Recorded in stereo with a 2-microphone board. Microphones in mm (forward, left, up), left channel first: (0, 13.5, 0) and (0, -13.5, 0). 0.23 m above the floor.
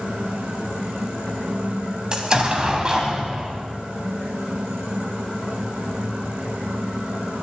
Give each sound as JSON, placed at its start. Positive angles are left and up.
{"t": 2.1, "sound": "an explosion", "side_deg": -30, "distance_m": 1.8}